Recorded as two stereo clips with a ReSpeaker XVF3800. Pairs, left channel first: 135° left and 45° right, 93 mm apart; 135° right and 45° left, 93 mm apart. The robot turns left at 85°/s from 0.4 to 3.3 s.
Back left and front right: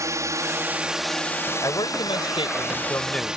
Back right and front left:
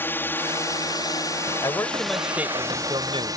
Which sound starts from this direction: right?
A drone, at 0.0 s.